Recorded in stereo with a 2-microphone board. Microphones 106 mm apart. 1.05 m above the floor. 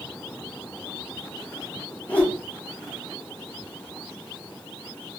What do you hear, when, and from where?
2.1 s a whoosh: 15° left (ahead or behind), 0.6 m